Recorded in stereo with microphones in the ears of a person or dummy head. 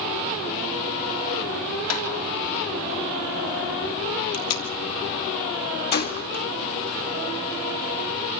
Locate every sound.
1.9 s tapping: 75° left (ahead or behind), 4 m
4.3 s tape being pulled: 90° left, 2.5 m
5.9 s a gunshot: 50° left (ahead or behind), 1.7 m